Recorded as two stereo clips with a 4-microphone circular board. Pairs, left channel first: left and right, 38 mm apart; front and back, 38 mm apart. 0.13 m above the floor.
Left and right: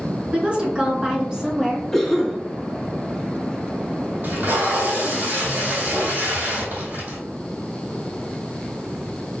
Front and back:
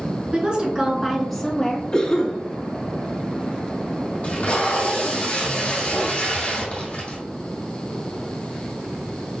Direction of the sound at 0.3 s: 140° right.